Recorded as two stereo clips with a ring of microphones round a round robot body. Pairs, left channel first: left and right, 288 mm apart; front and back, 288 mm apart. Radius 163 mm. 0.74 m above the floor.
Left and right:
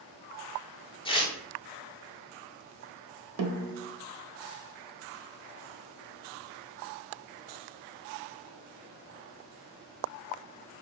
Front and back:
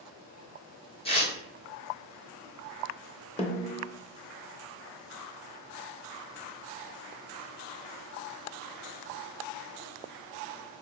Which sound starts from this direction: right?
A snare drum, at 3.4 s.